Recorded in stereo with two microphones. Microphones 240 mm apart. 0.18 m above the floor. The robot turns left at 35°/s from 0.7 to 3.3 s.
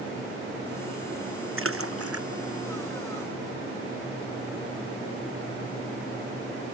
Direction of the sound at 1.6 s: 60° right (ahead or behind).